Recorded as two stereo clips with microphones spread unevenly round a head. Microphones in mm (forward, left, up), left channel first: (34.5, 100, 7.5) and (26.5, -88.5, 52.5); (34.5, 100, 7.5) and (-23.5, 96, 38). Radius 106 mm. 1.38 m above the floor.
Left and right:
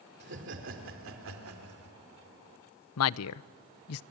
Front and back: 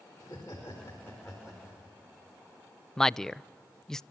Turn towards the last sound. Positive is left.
turn(degrees=90)